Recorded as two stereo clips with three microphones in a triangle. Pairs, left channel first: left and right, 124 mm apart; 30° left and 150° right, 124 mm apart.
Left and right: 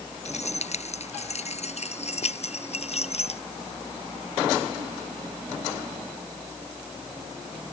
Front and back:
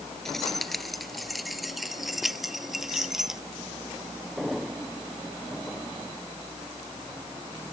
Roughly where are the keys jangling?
Behind left.